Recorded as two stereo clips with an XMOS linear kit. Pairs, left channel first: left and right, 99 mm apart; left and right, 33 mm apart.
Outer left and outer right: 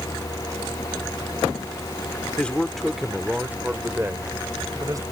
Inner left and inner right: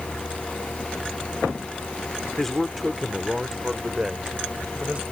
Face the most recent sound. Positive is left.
turn(degrees=-35)  # may be behind; listen again after turning